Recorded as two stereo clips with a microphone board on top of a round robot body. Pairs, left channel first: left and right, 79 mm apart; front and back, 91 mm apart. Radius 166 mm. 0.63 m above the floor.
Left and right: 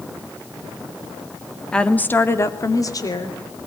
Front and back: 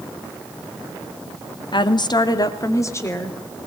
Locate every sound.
1.7 s a woman speaking: 15° left, 1.9 m; by 3.4 s 65° left, 3 m